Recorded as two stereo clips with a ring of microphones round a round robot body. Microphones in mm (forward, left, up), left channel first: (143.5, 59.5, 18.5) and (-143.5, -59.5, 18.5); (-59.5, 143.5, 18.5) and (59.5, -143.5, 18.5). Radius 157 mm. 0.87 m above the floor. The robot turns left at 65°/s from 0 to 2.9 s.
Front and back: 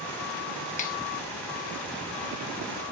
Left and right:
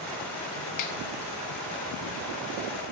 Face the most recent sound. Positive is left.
turn(degrees=-50)